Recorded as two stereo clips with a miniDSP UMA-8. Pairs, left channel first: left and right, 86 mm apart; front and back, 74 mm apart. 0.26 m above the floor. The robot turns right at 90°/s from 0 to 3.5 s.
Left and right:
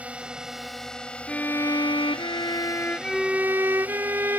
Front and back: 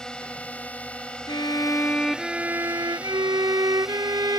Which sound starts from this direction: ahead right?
A drone, at 0.0 s.